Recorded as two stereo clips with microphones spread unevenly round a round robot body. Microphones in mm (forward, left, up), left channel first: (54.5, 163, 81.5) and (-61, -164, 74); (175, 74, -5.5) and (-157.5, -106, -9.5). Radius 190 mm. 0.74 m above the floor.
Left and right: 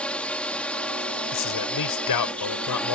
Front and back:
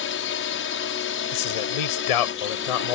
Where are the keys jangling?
No keys jangling in this recording.